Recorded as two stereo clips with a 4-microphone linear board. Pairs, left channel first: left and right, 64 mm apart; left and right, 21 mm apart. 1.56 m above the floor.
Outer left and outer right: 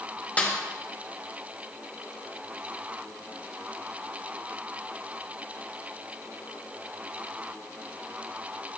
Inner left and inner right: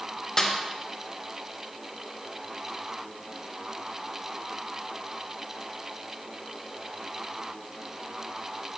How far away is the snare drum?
About 0.9 m.